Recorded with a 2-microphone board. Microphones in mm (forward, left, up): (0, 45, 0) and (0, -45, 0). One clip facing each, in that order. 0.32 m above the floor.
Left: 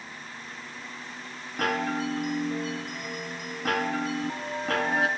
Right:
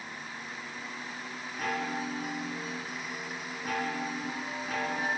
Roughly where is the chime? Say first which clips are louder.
Left 6 dB; left.